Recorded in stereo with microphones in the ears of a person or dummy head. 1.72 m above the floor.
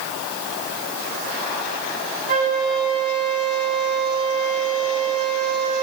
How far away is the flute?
About 3.5 m.